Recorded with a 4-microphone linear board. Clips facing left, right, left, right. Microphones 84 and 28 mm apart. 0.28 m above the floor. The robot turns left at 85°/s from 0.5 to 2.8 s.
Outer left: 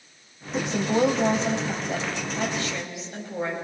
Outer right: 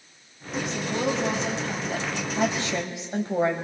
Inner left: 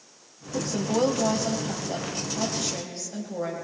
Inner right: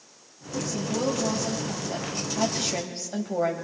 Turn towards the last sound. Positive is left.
turn(degrees=-60)